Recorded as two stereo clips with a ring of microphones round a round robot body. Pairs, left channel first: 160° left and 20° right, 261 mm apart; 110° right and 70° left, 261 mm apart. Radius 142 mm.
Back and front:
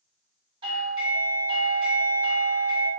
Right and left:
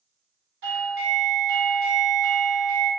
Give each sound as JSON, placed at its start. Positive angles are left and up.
{"t": 0.6, "sound": "a doorbell", "azimuth_deg": 45, "distance_m": 1.2}